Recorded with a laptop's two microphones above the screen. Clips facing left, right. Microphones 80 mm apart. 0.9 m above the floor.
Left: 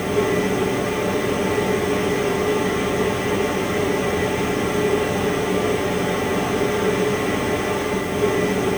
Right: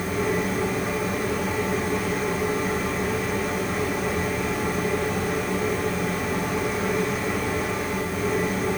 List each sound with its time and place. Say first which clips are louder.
0.0 s a machine running: left 5 dB; 70° left (ahead or behind), 3.5 m